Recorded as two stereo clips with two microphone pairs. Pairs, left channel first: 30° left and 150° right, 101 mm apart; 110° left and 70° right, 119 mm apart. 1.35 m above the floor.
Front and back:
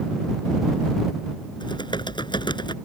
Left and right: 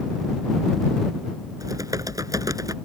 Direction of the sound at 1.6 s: 10° right.